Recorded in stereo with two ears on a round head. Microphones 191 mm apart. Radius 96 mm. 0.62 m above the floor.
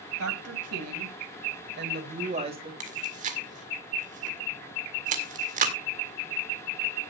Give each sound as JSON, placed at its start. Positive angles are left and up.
{"t": 0.2, "sound": "a woman speaking", "side_deg": -75, "distance_m": 3.0}
{"t": 2.8, "sound": "chewing", "side_deg": -35, "distance_m": 1.8}